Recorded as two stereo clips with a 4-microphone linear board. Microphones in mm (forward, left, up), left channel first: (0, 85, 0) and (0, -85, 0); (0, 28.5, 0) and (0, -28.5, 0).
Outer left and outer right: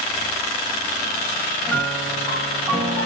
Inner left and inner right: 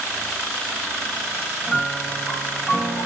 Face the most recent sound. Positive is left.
turn(degrees=0)  # may be behind; listen again after turning